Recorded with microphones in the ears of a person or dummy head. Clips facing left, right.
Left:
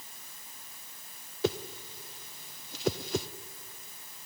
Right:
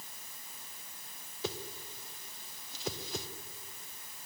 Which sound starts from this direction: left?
A whoosh, at 1.4 s.